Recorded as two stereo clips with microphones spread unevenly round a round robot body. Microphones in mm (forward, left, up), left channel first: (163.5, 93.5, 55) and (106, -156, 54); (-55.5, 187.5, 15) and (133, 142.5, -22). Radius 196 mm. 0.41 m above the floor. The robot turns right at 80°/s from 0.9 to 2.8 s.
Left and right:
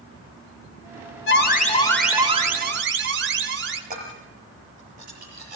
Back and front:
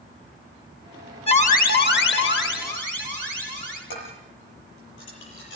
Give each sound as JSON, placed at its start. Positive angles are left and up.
{"t": 1.3, "sound": "an alarm", "azimuth_deg": 105, "distance_m": 2.5}
{"t": 3.9, "sound": "dishes clattering", "azimuth_deg": -170, "distance_m": 7.5}